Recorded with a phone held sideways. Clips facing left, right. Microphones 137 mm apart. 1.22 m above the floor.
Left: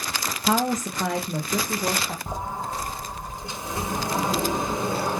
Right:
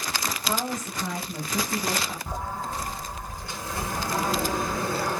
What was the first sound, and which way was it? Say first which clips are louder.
A woman speaking: left 9 dB; 80° left.